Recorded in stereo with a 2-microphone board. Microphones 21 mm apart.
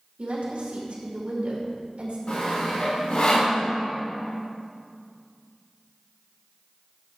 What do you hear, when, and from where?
0.2 s a woman speaking: 75° right (ahead or behind), 2.5 m
2.3 s sawing: 90° left, 3.5 m